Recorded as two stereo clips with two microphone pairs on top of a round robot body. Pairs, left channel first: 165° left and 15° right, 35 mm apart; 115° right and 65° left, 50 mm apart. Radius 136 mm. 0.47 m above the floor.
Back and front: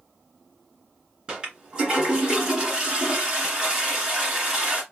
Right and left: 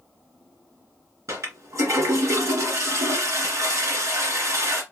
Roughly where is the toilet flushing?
Ahead left.